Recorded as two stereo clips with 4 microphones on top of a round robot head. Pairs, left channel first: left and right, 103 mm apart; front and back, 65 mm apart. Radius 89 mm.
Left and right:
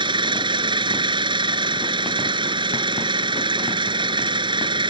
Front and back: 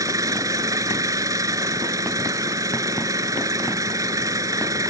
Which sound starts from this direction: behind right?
An engine running, at 0.0 s.